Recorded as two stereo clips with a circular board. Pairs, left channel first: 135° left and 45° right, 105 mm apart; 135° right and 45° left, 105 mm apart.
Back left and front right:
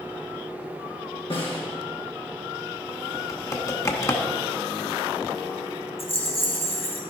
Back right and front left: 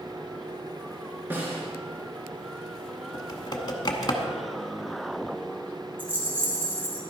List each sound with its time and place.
1.3 s a snare drum: 115° left, 3.5 m
3.1 s typing on a keyboard: 175° right, 1.0 m
6.0 s a rattle: 120° left, 2 m